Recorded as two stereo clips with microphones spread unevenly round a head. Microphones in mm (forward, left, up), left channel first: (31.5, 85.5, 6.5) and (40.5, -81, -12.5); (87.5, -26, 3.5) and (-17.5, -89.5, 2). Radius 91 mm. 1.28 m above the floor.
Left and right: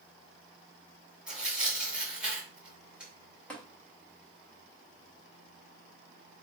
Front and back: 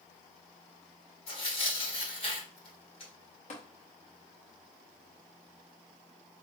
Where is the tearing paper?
Straight ahead, 1.5 m.